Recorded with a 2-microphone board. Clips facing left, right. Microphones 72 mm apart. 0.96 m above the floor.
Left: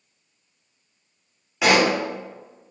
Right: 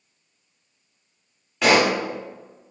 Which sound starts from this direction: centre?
A pop, at 1.6 s.